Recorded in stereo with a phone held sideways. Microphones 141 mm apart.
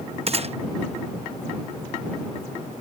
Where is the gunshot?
45° right (ahead or behind).